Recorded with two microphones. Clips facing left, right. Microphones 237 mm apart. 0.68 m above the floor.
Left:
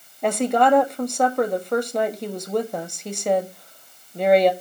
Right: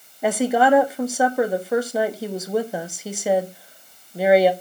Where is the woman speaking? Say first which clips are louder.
Right 1 dB; 5° right (ahead or behind), 1.1 m.